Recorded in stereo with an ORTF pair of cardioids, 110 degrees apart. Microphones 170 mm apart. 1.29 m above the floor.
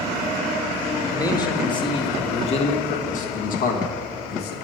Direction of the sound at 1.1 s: 20° left.